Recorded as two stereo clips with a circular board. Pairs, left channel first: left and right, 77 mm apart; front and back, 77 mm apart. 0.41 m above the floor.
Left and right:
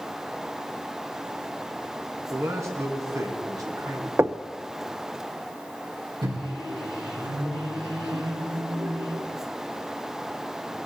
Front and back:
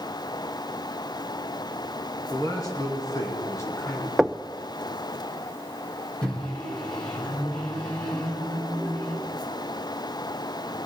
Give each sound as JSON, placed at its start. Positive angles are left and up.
{"t": 2.3, "sound": "a man speaking", "azimuth_deg": -35, "distance_m": 4.0}
{"t": 4.2, "sound": "knocking", "azimuth_deg": -110, "distance_m": 0.5}
{"t": 6.2, "sound": "a microwave", "azimuth_deg": -75, "distance_m": 4.0}